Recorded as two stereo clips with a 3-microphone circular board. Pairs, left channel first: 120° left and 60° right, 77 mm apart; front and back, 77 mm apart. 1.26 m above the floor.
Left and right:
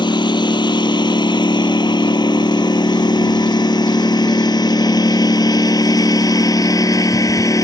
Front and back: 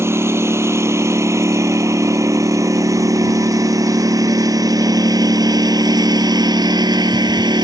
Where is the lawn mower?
125° left; by 7.6 s 160° left.